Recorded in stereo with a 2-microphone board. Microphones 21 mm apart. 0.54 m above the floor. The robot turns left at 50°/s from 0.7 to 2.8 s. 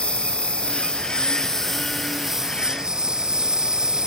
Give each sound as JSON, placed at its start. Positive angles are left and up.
{"t": 0.0, "sound": "a lawn mower", "azimuth_deg": 70}